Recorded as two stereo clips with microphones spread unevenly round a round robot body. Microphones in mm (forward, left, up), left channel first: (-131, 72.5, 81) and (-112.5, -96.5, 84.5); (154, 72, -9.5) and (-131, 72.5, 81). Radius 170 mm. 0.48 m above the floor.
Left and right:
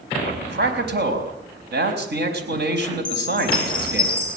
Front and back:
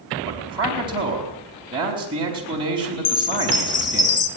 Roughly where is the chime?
Ahead.